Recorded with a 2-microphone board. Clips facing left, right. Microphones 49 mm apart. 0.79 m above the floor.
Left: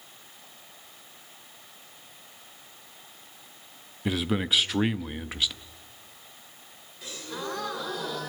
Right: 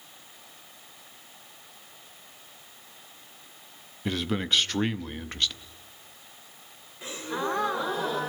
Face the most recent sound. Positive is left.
turn(degrees=-30)  # may be behind; listen again after turning